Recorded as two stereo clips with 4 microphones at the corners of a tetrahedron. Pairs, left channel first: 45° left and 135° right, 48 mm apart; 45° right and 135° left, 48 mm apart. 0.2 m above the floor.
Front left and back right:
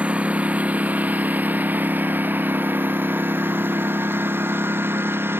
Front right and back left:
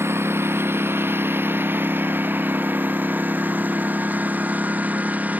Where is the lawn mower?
160° left; by 5.4 s 170° right.